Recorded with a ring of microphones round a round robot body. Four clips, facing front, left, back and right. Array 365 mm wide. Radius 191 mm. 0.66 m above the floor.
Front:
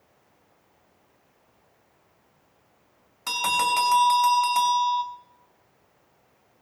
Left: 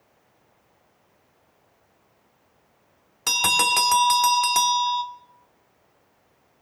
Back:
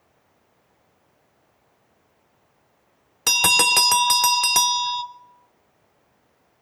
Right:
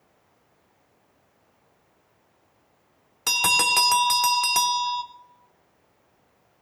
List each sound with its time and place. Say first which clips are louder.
3.3 s a bell: left 1 dB, back 1 dB; straight behind, 1.2 m